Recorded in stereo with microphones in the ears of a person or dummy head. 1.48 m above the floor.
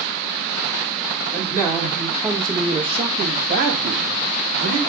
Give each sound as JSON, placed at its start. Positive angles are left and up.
{"t": 1.3, "sound": "a man speaking", "side_deg": 15, "distance_m": 2.5}